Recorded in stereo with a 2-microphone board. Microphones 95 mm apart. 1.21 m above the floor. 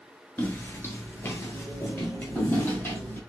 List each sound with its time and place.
0.4 s footsteps: 20° left (ahead or behind), 1.2 m; by 3.2 s 25° left (ahead or behind), 3 m